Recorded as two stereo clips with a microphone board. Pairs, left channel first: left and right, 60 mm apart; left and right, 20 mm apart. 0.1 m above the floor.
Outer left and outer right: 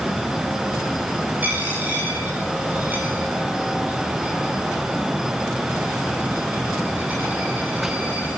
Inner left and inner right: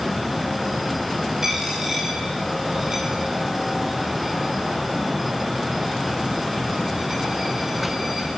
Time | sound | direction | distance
1.4 | a dropped coin | 25° right (ahead or behind) | 9 m